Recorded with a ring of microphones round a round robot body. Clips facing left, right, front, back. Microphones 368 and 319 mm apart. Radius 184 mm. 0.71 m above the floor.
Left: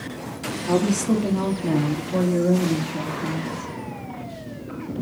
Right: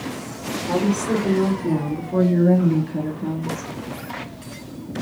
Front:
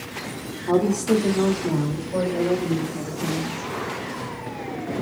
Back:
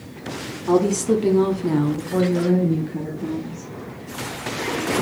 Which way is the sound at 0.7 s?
125° left.